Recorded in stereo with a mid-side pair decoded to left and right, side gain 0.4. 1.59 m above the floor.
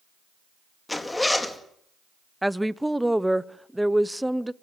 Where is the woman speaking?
5° right, 0.8 m.